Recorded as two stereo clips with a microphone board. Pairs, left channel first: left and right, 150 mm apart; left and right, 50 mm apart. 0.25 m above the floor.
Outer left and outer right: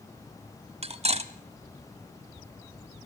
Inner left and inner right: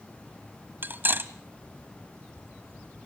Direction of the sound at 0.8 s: 45° right (ahead or behind).